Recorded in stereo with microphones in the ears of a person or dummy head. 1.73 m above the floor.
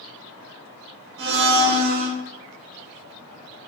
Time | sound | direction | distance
1.2 | a blender | 50° right (ahead or behind) | 0.8 m